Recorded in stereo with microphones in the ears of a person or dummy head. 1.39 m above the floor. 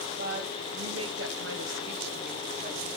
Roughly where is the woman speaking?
Right.